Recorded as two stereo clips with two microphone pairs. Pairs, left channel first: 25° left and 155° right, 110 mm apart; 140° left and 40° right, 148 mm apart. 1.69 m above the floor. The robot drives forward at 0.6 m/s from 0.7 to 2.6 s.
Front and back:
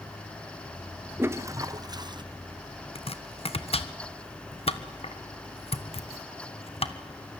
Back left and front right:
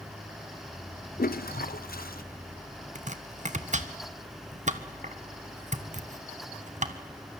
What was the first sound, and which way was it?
A toilet flushing, 130° left.